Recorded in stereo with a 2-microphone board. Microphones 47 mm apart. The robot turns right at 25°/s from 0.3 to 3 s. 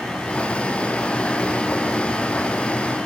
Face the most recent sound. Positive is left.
No sound to turn to.